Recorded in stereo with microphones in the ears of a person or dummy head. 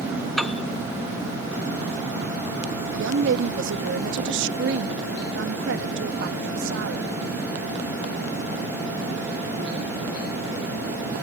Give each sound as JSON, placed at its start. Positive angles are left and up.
{"t": 0.4, "sound": "a piano", "side_deg": -5}
{"t": 2.9, "sound": "a woman speaking", "side_deg": -60}